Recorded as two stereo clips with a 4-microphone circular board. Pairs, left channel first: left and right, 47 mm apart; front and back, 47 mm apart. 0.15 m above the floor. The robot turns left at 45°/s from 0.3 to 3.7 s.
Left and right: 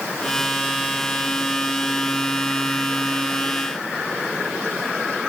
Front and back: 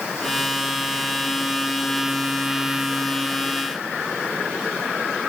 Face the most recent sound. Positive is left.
No sound to turn to.